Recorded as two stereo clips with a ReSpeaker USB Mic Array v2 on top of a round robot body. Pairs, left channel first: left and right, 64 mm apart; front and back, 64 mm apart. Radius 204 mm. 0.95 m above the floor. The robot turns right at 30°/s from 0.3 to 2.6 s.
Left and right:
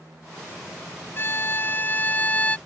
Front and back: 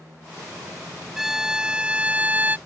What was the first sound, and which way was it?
A violin, 100° left.